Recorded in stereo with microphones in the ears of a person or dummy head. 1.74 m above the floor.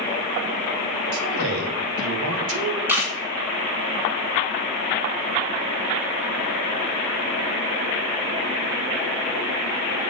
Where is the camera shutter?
10° right (ahead or behind), 1.5 m.